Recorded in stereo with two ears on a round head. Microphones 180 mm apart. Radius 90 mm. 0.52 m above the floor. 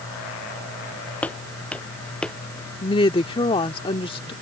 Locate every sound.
1.2 s footsteps: 10° left (ahead or behind); by 2.4 s 5° left (ahead or behind)
2.8 s a woman speaking: 25° left (ahead or behind)